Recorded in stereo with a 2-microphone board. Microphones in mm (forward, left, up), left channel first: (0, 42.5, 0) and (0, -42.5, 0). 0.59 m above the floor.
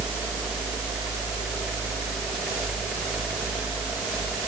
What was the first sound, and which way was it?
Only background noise.